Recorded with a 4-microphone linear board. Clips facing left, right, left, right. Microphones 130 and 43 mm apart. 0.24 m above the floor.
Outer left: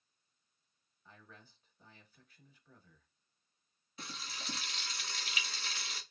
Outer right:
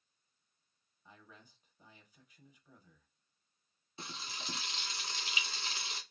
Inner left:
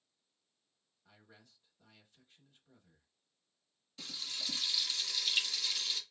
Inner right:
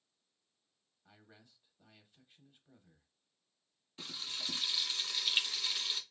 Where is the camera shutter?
No camera shutter in this recording.